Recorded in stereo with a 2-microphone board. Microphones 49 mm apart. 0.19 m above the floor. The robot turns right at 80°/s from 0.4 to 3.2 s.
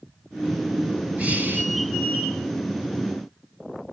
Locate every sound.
1.2 s breathing: 135° right, 1.6 m; by 1.7 s 95° right, 1.6 m